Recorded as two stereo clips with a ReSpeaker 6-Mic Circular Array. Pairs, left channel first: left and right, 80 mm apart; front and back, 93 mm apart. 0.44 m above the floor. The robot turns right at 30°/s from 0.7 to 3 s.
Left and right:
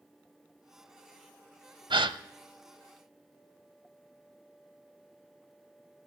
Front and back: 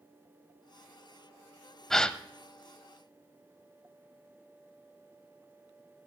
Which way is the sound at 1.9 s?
85° right.